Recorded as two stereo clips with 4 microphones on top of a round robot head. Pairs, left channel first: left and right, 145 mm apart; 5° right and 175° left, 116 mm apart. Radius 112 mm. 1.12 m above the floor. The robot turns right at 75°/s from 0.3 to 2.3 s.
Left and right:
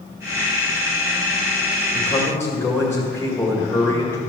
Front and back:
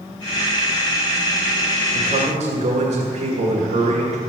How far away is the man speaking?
About 2 m.